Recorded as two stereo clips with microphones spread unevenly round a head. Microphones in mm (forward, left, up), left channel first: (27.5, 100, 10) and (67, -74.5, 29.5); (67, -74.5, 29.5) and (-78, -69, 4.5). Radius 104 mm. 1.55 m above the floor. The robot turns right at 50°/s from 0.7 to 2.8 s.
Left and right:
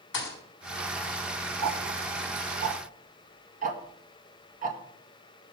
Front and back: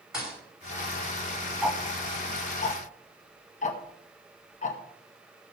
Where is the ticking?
95° right, 2.0 m; by 4.8 s 35° right, 2.0 m.